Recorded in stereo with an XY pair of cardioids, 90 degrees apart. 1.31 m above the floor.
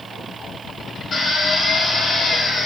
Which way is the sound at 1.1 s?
50° left.